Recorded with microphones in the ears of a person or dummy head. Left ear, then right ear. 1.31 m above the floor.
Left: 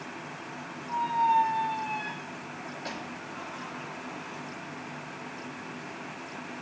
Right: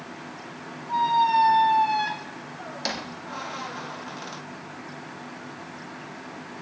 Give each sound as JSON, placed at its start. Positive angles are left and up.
{"t": 0.9, "sound": "a squeak", "side_deg": -70, "distance_m": 0.6}